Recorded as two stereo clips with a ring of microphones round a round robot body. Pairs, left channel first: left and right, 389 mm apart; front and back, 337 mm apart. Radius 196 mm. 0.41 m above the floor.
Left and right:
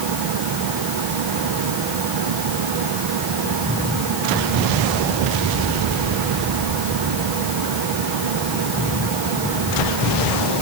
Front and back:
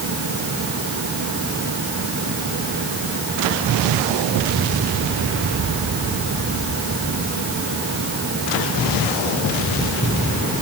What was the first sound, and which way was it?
Only background noise.